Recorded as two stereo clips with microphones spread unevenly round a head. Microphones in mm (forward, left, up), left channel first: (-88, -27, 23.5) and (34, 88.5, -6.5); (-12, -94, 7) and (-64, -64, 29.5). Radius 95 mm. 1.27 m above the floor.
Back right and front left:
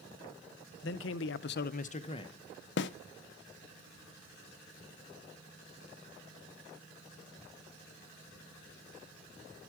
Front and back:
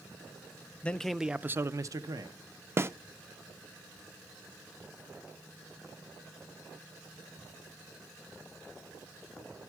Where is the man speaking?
105° right, 0.7 m; by 2.3 s 160° left, 0.9 m.